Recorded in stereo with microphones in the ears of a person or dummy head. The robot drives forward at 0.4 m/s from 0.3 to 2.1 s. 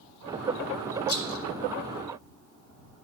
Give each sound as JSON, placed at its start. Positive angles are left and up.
{"t": 1.1, "sound": "a rattle", "side_deg": 60, "distance_m": 0.7}